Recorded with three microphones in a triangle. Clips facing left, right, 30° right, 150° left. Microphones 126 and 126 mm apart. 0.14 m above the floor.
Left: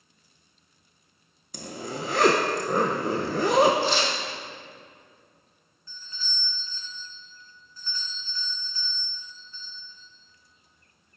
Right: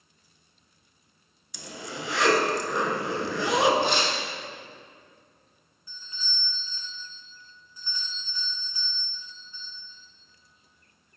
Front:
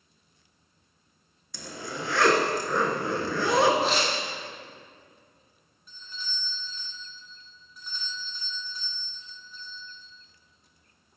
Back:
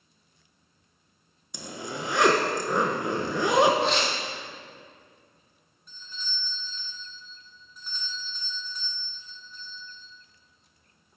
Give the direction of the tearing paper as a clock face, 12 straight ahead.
4 o'clock.